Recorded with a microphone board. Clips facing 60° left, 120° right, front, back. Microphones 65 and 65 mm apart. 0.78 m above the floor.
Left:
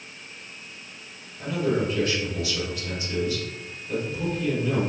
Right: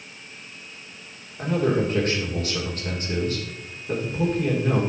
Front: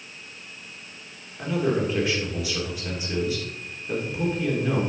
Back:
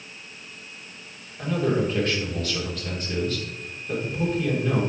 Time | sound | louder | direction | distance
1.4 | a man speaking | right 3 dB, even | 80° right | 2.5 m